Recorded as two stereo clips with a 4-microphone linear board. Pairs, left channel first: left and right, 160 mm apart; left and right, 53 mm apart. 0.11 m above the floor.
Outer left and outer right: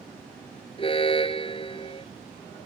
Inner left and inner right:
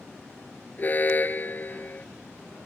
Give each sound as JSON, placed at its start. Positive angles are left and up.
{"t": 0.8, "sound": "an alarm", "side_deg": 35}